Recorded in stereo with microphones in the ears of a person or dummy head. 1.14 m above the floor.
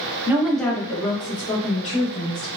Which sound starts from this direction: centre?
A woman speaking, at 0.3 s.